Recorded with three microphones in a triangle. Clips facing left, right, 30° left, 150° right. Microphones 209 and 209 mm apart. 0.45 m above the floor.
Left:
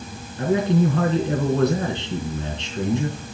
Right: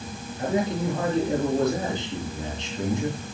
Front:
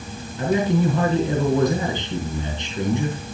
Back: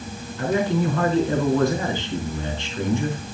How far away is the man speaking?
About 4.5 m.